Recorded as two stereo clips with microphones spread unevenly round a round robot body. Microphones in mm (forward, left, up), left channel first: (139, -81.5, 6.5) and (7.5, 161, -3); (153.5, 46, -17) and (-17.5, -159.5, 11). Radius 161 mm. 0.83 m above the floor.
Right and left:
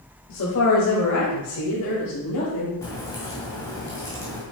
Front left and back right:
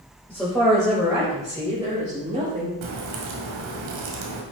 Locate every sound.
0.3 s a woman speaking: 35° right, 4 m; by 2.7 s 70° right, 5 m
2.8 s a crack: 140° right, 2 m